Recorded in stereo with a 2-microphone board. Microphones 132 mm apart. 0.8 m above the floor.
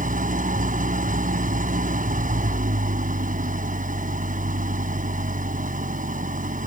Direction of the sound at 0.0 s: 85° right.